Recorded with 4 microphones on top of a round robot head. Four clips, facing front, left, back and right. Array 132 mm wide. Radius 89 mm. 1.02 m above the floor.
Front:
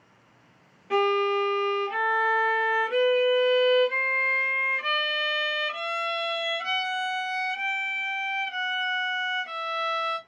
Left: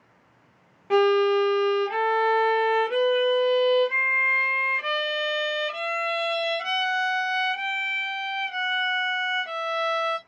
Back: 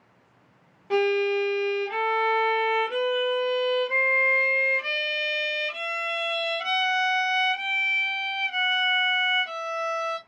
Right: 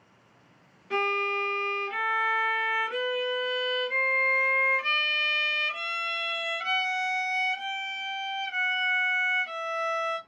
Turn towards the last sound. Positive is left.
turn(degrees=105)